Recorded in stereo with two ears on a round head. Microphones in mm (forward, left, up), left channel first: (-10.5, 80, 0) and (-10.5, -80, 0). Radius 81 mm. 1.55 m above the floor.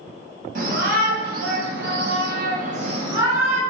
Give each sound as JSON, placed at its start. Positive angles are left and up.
{"t": 0.6, "sound": "a shout", "side_deg": -50, "distance_m": 1.5}